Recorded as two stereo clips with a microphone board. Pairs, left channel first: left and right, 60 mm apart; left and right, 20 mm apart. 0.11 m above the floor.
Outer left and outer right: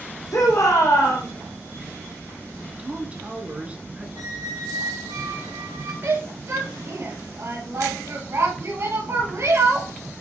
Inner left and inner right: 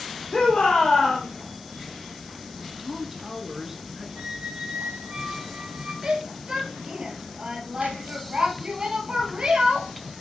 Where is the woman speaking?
20° right (ahead or behind), 1.4 m.